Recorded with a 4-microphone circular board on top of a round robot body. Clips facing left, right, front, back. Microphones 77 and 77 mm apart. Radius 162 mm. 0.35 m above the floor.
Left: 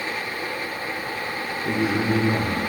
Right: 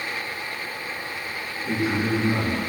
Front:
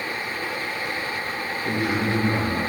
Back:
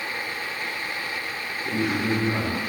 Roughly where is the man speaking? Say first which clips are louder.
Left 1 dB, even; left.